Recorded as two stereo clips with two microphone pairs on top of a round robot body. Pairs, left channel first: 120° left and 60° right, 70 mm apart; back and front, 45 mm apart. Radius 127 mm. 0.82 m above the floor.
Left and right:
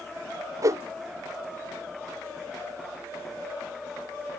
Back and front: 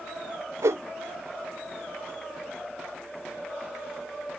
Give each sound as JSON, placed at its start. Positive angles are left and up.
{"t": 0.6, "sound": "a whoosh", "azimuth_deg": -20}